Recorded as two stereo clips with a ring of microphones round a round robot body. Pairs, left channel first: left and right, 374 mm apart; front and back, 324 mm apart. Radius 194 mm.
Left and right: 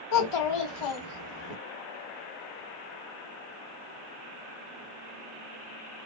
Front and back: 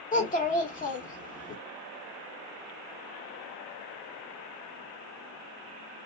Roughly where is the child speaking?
Ahead left.